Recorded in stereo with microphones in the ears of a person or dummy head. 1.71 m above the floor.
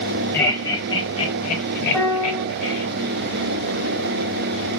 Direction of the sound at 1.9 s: 5° left (ahead or behind).